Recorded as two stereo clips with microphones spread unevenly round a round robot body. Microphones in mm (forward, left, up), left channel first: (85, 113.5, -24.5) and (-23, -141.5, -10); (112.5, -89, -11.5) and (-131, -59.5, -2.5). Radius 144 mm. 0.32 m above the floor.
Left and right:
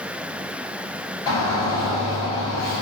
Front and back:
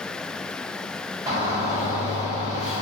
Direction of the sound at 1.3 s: 110° left.